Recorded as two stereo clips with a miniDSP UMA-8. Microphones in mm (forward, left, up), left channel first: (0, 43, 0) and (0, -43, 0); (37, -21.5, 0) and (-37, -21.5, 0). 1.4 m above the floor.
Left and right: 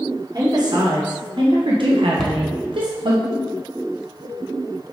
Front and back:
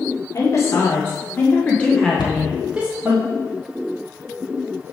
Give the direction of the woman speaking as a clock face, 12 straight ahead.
2 o'clock.